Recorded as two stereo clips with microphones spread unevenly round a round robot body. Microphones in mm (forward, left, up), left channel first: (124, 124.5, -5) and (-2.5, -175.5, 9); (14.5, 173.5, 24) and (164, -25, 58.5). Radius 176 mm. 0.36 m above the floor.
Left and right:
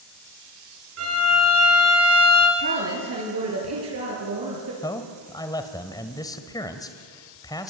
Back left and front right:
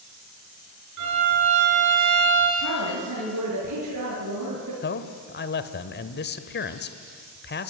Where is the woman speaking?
70° right, 6.5 m.